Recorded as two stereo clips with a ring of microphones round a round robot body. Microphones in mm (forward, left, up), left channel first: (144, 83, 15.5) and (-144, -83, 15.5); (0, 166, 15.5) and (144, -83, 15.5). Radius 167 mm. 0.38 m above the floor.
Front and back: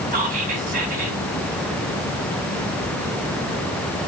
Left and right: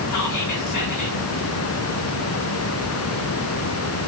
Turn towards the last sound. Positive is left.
turn(degrees=145)